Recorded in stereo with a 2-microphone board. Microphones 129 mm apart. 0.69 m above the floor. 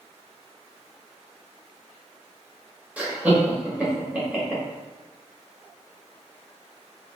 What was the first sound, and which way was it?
Laughter, 15° right (ahead or behind).